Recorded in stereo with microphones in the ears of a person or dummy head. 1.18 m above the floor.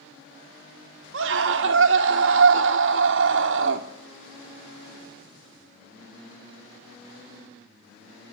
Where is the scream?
55° right (ahead or behind), 1.0 m.